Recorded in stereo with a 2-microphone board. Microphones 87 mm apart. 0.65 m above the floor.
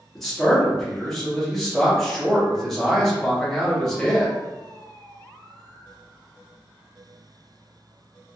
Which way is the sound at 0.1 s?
5° left (ahead or behind).